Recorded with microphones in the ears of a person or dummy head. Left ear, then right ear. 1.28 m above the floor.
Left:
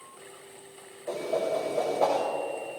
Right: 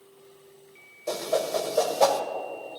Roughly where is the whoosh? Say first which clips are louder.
Right 2 dB; right.